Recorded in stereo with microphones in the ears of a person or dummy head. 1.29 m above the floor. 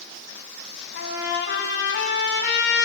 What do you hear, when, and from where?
0.9 s a trumpet: 60° left (ahead or behind), 3.5 m